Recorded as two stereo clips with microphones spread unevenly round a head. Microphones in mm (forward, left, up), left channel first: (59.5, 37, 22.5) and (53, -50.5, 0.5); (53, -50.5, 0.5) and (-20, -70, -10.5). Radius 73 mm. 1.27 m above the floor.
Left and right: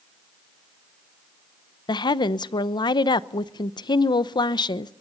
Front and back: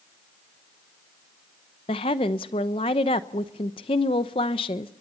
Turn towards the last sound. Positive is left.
turn(degrees=50)